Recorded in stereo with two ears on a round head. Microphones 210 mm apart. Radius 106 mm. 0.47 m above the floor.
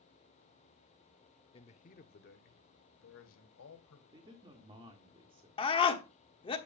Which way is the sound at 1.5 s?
25° left (ahead or behind).